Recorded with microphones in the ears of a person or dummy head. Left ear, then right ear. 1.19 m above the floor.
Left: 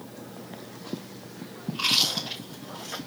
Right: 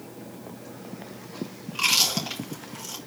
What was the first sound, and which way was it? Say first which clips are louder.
Chewing: right 1 dB; 25° right (ahead or behind).